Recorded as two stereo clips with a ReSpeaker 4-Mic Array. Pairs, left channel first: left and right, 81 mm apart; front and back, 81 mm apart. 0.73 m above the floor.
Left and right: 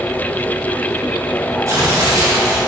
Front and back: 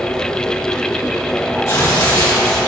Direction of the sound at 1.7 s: 45° right.